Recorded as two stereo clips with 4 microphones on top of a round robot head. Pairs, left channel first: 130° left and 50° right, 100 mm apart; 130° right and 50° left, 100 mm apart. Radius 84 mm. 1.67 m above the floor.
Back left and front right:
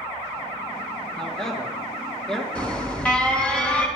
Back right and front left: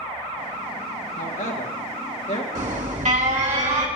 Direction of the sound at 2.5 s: 50° left.